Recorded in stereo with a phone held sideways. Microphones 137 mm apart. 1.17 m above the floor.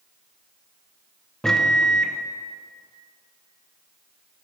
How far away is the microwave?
About 0.5 m.